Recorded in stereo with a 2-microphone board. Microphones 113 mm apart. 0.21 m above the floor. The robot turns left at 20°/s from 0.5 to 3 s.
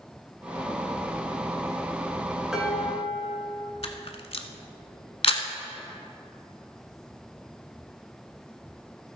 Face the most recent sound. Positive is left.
turn(degrees=60)  # may be behind; listen again after turning